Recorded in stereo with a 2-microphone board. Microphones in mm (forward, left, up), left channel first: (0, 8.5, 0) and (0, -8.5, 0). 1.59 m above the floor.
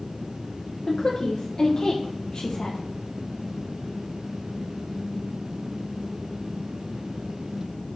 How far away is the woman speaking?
About 0.9 m.